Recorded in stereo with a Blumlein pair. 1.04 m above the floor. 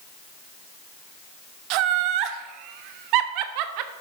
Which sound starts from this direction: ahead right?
Laughter, at 1.7 s.